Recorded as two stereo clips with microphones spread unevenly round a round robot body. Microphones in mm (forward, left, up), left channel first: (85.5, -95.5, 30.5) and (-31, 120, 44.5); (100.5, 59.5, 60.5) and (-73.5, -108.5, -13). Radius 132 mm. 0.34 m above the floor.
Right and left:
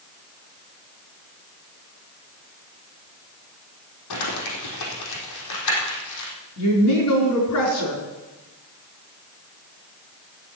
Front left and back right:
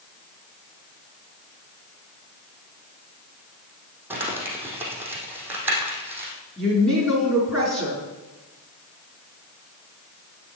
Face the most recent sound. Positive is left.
turn(degrees=-50)